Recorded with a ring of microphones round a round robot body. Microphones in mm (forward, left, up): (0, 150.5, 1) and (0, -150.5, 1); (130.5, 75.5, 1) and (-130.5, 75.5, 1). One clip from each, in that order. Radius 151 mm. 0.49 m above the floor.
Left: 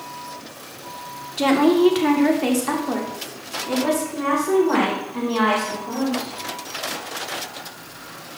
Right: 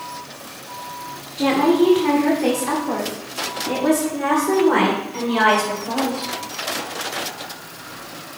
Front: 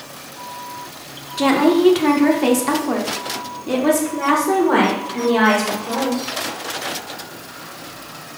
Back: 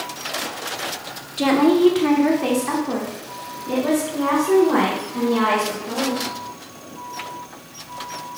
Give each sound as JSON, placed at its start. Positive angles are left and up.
{"t": 1.4, "sound": "a woman speaking", "azimuth_deg": 85, "distance_m": 1.2}